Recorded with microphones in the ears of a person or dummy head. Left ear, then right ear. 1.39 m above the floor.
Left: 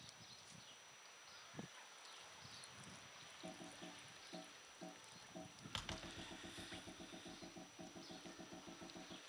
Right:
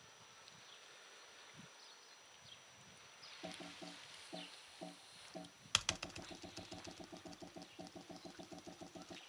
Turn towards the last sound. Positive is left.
turn(degrees=-65)  # may be behind; listen again after turning